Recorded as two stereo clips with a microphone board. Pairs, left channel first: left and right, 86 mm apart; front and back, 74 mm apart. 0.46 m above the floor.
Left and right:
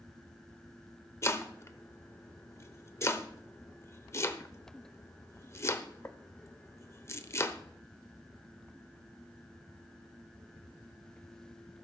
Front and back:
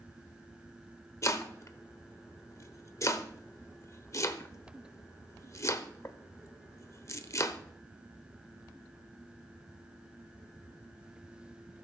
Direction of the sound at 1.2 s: 40° left.